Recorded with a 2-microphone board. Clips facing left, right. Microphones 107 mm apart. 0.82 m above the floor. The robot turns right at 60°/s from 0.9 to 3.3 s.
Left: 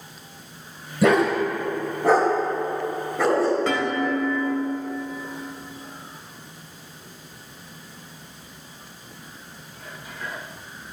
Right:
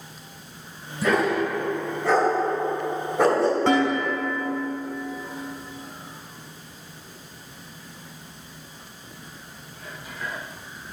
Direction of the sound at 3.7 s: 30° right (ahead or behind).